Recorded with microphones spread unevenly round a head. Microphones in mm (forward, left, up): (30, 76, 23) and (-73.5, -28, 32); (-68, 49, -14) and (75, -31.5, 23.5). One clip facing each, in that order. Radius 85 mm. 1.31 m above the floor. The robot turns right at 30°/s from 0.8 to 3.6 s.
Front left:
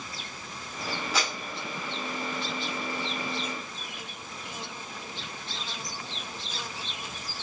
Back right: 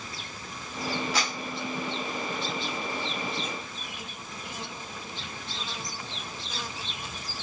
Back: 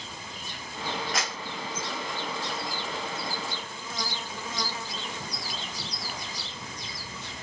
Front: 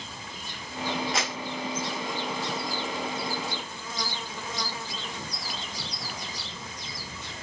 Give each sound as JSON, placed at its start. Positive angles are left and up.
{"t": 1.1, "sound": "a clap", "azimuth_deg": 35, "distance_m": 1.9}